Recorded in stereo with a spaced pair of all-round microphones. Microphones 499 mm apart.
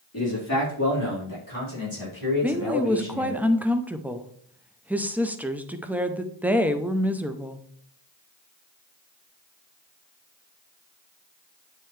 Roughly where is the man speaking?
Left.